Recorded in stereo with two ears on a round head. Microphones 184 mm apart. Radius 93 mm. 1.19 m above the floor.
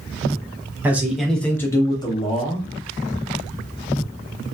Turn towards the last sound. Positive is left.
turn(degrees=30)  # may be behind; listen again after turning